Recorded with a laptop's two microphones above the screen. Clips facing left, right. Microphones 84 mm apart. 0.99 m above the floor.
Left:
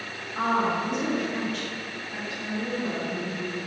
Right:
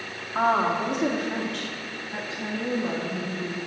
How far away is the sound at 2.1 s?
About 1.8 m.